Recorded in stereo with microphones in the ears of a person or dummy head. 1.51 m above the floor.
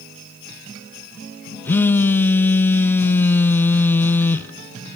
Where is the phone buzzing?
15° left (ahead or behind), 0.7 m.